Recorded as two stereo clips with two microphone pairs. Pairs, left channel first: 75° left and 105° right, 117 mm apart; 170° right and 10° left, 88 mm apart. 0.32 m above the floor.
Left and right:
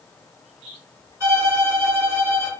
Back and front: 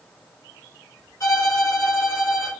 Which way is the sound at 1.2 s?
155° right.